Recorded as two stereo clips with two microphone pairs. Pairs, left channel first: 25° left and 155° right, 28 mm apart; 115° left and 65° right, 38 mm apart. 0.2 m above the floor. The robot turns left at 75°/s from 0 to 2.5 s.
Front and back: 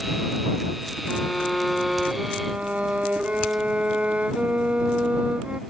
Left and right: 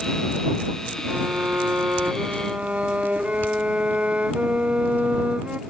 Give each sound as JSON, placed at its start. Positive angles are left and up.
{"t": 1.1, "sound": "a violin", "azimuth_deg": -15}